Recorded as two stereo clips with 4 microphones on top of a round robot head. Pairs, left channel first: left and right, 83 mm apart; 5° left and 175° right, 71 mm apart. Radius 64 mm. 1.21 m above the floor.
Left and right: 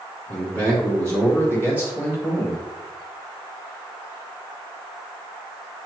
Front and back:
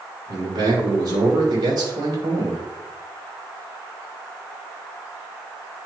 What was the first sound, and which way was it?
A man speaking, 145° right.